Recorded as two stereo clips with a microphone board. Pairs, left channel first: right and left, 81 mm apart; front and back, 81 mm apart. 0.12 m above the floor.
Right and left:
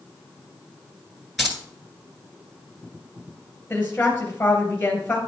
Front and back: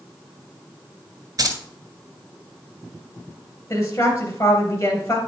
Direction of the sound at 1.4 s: Straight behind.